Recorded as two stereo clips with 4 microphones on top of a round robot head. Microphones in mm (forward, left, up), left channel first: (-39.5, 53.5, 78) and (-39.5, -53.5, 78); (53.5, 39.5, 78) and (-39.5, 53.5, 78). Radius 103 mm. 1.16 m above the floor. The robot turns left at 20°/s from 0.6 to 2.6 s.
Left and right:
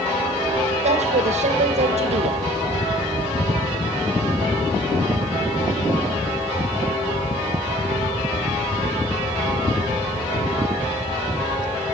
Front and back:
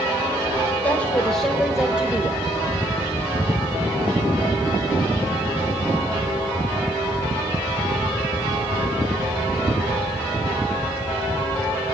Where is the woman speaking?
85° right, 2 m; by 2.5 s 115° right, 2 m.